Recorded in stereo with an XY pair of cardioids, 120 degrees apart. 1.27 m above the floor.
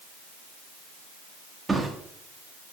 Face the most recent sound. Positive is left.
turn(degrees=-20)